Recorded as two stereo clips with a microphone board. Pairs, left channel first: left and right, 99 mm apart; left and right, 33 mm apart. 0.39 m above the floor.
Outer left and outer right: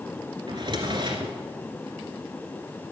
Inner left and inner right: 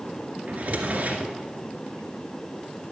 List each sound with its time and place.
0.5 s a drawer: 55° right (ahead or behind), 2 m